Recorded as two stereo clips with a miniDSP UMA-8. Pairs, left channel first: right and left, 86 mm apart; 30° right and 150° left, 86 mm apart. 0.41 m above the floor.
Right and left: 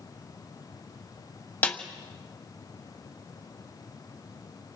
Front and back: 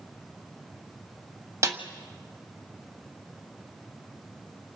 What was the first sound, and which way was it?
A snare drum, 155° right.